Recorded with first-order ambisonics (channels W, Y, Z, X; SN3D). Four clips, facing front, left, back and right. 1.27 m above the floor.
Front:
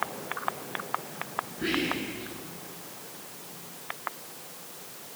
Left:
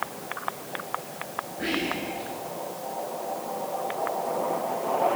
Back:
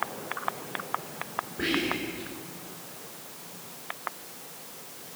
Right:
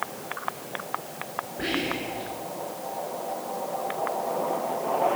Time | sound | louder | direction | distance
1.6 | whispering | even, back 1 dB | 155° right | 5 m